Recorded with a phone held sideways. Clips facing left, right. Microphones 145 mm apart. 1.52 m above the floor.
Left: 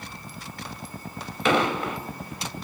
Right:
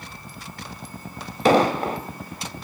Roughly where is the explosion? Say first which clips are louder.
Right 5 dB; right.